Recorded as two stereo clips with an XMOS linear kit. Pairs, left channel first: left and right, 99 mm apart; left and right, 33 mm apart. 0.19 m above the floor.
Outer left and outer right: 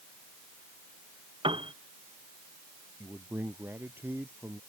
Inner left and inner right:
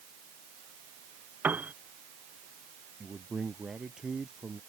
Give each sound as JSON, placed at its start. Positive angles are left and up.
{"t": 1.4, "sound": "a piano", "side_deg": -55}
{"t": 3.0, "sound": "a man speaking", "side_deg": -20}